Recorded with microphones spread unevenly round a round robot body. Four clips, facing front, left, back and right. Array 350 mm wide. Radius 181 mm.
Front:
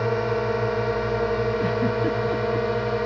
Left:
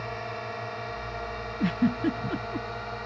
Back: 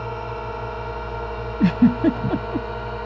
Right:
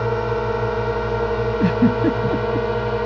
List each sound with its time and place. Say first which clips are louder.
0.0 s a drone: right 14 dB, front 6 dB; 70° right; by 3.1 s 75° right
1.6 s a giggle: right 7 dB, back 6 dB; 150° right